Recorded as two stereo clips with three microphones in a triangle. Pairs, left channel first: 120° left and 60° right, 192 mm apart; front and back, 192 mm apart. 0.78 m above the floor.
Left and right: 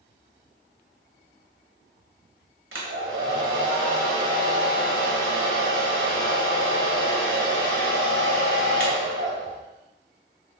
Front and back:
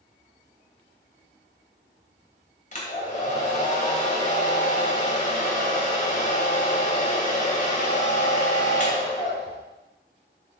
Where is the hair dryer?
50° right, 1.6 m.